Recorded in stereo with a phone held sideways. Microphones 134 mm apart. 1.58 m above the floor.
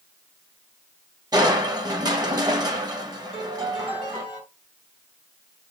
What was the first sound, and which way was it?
Crushing, 30° right (ahead or behind).